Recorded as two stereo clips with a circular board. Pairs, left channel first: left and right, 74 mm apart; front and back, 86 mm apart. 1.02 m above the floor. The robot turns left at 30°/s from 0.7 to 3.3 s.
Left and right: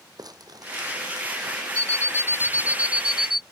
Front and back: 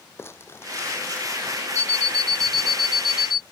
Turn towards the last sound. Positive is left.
turn(degrees=-175)